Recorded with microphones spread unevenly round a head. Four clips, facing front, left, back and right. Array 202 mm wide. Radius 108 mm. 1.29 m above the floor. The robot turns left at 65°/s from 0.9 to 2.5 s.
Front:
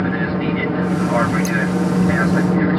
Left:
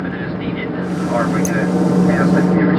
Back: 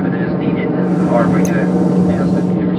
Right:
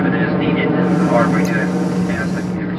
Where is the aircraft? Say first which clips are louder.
Right 7 dB, back 4 dB; 130° right; by 2.8 s 100° left.